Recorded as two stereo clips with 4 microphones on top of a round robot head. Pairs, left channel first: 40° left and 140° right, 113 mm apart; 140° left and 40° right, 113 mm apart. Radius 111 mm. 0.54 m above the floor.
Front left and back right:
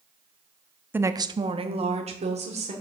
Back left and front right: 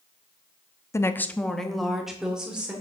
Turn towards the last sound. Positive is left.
turn(degrees=-125)